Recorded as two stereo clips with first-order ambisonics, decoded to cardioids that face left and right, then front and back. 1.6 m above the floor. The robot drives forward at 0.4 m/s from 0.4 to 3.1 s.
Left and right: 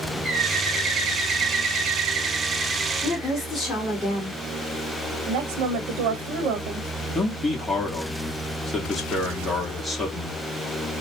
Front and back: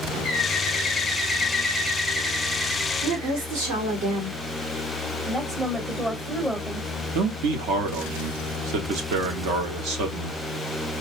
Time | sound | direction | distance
0.2 | a bird | 50° right | 1.1 m
3.0 | a woman speaking | 175° left | 2 m
5.3 | a woman speaking | 105° right | 0.9 m
7.1 | a man speaking | 170° left | 1.0 m